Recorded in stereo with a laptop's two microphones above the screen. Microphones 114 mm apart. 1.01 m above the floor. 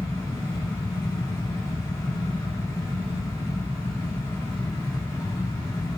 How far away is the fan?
About 1.6 m.